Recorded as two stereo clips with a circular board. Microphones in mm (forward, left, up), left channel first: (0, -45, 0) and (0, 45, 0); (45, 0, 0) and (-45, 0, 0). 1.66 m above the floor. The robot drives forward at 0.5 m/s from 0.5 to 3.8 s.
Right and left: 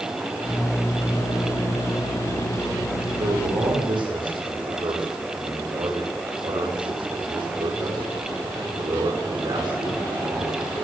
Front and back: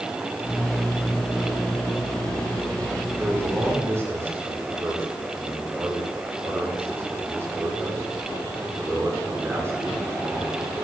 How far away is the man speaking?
About 5 m.